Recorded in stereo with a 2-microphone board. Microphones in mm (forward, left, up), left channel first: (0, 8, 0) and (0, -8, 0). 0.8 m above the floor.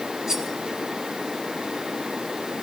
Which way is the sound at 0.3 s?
45° right (ahead or behind).